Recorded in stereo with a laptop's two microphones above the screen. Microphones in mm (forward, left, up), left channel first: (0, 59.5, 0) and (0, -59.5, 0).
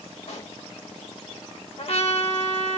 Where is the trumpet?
55° left (ahead or behind), 1.1 m.